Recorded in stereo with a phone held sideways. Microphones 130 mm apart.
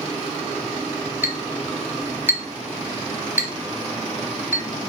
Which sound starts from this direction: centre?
A clink, at 1.2 s.